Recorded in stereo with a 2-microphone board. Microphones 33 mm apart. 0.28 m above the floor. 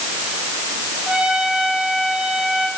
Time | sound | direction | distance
1.1 | a trumpet | 25° right (ahead or behind) | 9.5 m